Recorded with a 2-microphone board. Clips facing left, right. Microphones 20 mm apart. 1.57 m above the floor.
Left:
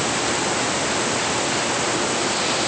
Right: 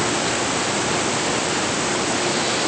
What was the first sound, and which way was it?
Only background noise.